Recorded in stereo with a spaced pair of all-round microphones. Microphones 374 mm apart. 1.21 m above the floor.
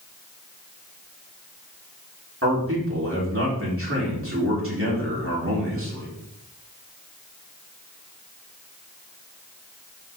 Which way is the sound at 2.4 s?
35° right (ahead or behind).